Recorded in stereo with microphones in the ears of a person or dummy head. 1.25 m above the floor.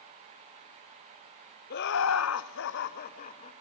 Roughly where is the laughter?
Left.